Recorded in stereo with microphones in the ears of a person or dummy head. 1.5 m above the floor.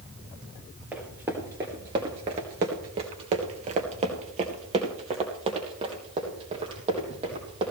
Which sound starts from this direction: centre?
Running footsteps, at 0.9 s.